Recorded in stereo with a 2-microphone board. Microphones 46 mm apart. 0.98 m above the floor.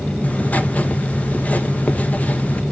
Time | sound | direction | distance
0.2 | writing | 30° left (ahead or behind) | 0.8 m